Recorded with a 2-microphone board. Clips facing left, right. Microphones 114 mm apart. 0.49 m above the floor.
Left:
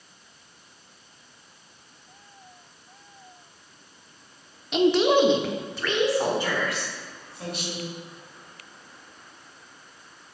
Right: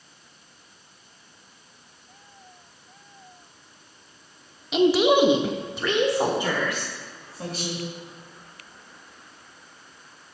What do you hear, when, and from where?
4.7 s a woman speaking: centre (ahead or behind), 0.8 m; by 7.8 s 20° right (ahead or behind), 2 m